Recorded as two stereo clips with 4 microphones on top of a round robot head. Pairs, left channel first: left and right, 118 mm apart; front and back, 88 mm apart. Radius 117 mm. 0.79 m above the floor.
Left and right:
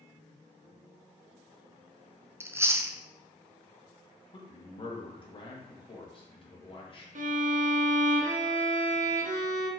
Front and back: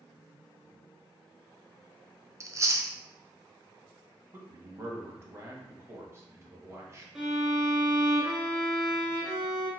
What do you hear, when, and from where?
2.4 s chewing: 150° right, 0.7 m
4.3 s a man speaking: 125° left, 1.5 m
7.2 s a violin: 100° right, 0.6 m